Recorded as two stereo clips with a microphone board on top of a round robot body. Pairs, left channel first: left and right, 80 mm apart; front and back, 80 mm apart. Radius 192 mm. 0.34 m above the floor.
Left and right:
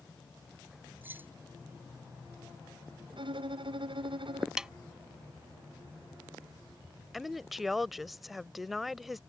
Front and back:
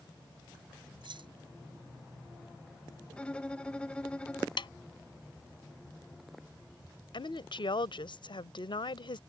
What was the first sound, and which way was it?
Keys jangling, 155° right.